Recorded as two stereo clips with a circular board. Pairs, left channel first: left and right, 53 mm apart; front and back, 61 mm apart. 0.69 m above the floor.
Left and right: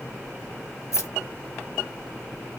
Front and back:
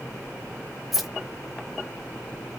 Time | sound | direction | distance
0.9 | keys jangling | 90° left | 1.1 m